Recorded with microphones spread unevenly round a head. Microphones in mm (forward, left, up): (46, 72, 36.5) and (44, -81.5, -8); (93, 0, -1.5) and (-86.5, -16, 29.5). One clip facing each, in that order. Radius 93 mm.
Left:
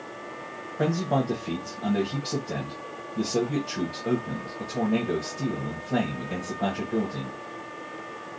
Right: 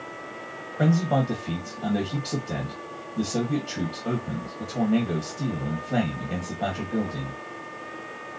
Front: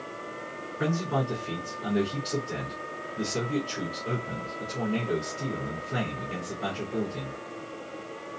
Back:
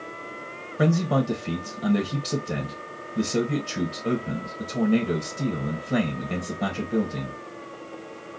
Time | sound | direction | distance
0.8 | a man speaking | 175° right | 1.1 m